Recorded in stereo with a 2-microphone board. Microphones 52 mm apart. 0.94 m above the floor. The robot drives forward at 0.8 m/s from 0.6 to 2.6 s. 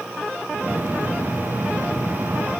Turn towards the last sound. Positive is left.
No sound to turn to.